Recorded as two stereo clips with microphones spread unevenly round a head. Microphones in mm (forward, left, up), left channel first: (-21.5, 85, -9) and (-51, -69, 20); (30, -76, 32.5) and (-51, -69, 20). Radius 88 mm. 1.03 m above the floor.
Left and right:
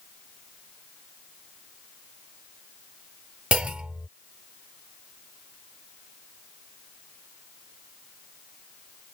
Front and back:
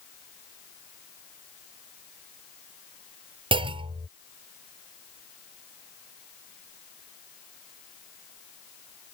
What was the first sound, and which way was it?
A clunk, 175° left.